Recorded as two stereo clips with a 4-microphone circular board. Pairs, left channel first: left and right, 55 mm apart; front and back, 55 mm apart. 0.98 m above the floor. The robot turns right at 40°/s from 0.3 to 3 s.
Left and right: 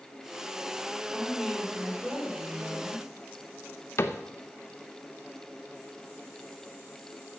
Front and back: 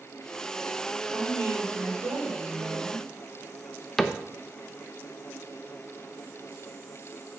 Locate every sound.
1.1 s a woman speaking: 165° left, 3 m; by 3.1 s 120° right, 3 m
4.0 s a cupboard door: 85° left, 0.8 m